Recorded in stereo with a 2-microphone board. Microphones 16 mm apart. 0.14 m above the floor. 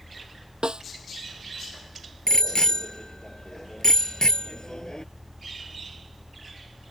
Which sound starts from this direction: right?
A snare drum, at 0.6 s.